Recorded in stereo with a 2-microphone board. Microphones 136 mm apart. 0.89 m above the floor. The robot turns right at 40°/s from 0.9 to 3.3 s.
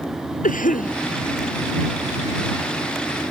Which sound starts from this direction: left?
A cough, at 0.4 s.